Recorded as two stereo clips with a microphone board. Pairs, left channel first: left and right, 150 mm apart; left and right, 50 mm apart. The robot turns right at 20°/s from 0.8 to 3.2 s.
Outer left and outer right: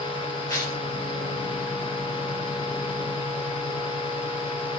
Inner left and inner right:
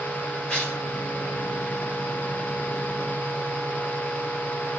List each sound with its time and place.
0.5 s tearing paper: 20° left (ahead or behind), 1.8 m